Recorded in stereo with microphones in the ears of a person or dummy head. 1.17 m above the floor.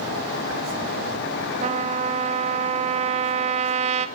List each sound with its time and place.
1.6 s a trumpet: 30° right (ahead or behind), 1.2 m